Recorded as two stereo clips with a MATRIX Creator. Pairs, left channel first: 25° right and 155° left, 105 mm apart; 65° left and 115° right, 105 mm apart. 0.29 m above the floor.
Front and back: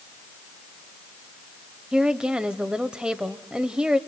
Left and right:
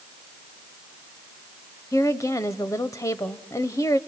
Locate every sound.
1.9 s a woman speaking: 85° left, 1.0 m